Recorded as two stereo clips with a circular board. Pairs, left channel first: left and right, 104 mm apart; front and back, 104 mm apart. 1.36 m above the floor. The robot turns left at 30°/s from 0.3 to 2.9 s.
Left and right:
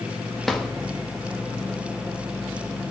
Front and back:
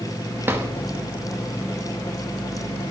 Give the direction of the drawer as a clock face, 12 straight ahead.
6 o'clock.